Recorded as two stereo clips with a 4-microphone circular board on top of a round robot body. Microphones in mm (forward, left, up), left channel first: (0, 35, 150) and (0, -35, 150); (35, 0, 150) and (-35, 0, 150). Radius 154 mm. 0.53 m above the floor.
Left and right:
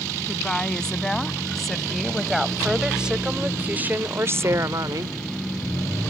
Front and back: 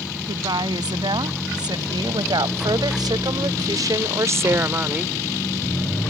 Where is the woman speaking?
170° left; by 5.2 s 110° right.